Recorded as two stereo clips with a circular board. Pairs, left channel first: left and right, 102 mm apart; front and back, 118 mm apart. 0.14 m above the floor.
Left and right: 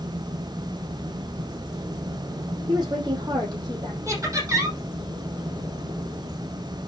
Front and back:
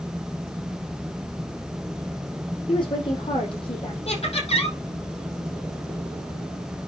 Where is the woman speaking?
45° right, 5.5 m.